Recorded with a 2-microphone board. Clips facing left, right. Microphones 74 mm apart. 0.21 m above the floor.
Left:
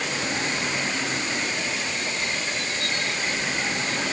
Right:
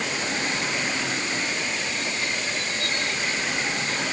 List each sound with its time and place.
Only background noise.